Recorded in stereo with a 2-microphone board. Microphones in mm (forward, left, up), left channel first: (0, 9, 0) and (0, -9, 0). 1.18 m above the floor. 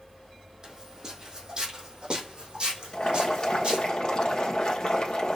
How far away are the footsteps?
About 3 m.